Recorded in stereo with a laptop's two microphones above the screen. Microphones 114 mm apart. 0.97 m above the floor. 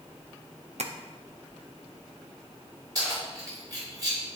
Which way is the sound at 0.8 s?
70° right (ahead or behind).